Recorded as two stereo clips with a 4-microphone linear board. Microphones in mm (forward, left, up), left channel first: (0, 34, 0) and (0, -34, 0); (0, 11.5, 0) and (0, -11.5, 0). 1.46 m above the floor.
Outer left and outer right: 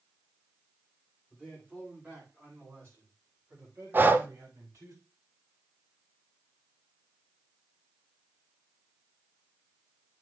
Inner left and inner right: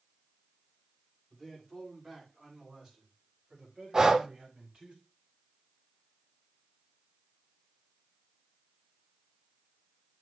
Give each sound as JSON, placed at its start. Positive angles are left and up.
{"t": 1.3, "sound": "a man speaking", "side_deg": -20, "distance_m": 6.0}
{"t": 3.9, "sound": "breathing", "side_deg": -30, "distance_m": 0.7}